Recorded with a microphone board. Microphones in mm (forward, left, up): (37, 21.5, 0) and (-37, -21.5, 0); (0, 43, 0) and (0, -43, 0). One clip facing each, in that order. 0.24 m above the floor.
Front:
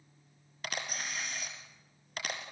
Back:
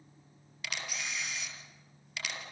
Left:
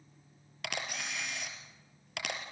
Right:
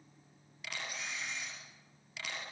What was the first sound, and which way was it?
A camera shutter, 75° left.